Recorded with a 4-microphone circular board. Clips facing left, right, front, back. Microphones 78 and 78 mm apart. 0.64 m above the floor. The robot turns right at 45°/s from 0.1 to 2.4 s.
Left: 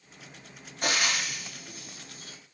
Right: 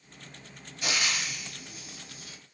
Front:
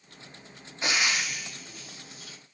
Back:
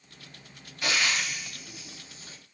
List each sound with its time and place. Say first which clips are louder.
0.8 s frying: left 3 dB, even; 60° left, 0.5 m; by 2.4 s 130° left, 0.5 m